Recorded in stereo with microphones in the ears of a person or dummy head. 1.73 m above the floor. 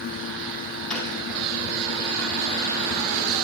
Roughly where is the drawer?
Centre.